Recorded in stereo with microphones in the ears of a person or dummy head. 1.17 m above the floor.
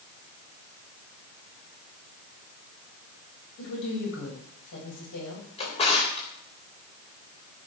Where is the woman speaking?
65° left (ahead or behind), 7.5 m.